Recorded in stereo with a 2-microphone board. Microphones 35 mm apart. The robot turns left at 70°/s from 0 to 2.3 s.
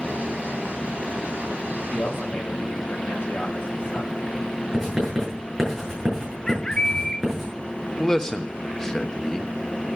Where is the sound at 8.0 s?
15° left (ahead or behind), 1.3 m.